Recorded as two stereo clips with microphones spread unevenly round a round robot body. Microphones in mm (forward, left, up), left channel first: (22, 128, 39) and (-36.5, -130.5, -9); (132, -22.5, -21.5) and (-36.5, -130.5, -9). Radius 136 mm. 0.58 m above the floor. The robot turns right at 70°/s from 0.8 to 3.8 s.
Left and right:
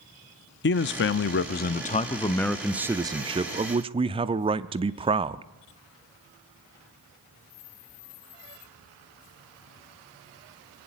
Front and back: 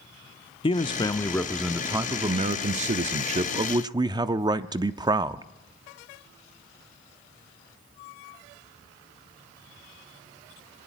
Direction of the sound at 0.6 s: 60° left.